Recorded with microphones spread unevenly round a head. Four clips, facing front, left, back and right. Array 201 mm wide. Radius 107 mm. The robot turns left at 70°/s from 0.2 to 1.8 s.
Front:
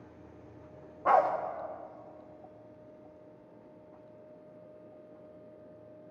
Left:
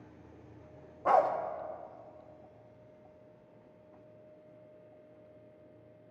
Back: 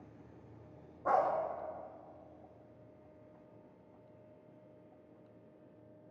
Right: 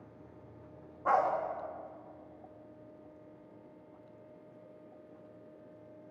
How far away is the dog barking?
About 0.9 m.